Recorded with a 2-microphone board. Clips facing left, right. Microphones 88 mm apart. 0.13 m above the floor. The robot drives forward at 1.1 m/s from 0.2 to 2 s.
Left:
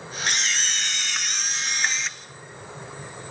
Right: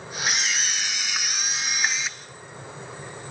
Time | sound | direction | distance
0.3 | a camera shutter | 5° right (ahead or behind) | 1.1 m